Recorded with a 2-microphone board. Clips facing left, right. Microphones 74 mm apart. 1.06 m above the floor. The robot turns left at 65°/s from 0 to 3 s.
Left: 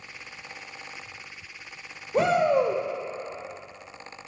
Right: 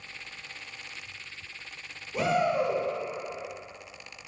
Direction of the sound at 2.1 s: 135° left.